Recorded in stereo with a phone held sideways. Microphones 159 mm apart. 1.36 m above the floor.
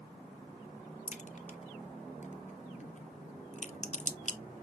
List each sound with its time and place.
1.1 s a crack: 50° left (ahead or behind), 0.6 m